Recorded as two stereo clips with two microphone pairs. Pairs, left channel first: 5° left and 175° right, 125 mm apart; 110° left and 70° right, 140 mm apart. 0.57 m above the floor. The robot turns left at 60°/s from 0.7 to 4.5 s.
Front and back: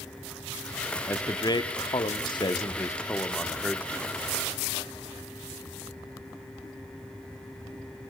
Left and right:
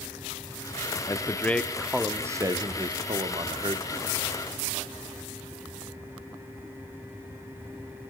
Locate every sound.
1.1 s a man speaking: 60° left, 1.1 m; by 4.2 s 125° right, 1.1 m